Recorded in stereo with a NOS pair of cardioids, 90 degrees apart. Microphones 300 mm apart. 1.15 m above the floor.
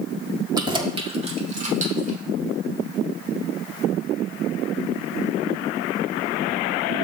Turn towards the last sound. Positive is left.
turn(degrees=-25)